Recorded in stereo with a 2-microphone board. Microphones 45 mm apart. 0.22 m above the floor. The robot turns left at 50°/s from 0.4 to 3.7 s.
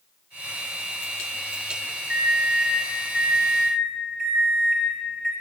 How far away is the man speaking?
I don't hear a man speaking.